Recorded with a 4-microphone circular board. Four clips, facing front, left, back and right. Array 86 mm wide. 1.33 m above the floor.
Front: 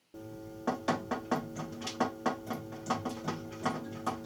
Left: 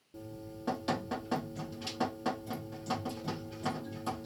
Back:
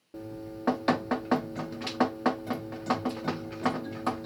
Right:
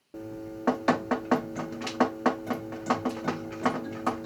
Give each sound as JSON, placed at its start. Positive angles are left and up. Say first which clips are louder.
{"t": 0.1, "sound": "dripping", "louder": "right 8 dB, back 5 dB", "azimuth_deg": -115, "distance_m": 0.5}